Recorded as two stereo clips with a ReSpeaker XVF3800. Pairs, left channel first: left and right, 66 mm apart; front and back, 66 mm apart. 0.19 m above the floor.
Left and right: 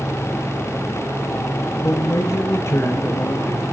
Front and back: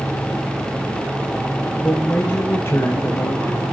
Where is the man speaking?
70° left, 1.7 m; by 3.6 s 40° left, 3 m.